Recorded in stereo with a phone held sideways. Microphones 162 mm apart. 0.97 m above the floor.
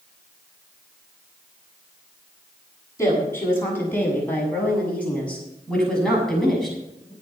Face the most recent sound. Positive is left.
turn(degrees=0)  # may be behind; listen again after turning